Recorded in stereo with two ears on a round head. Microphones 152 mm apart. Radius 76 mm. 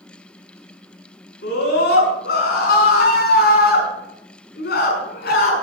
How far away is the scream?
About 6 m.